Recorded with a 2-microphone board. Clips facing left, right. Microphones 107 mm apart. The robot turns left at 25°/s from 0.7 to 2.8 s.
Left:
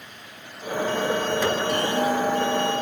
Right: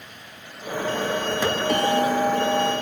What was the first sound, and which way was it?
A bell, 65° right (ahead or behind).